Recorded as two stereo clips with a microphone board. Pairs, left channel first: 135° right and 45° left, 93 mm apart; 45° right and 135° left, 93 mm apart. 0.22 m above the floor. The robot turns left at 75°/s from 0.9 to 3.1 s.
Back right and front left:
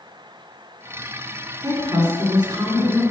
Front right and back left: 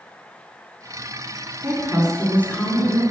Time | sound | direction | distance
1.6 | a woman speaking | 85° left | 2.5 m